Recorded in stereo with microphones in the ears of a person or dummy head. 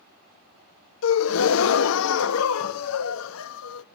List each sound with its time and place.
1.0 s a gasp: 75° left (ahead or behind), 0.8 m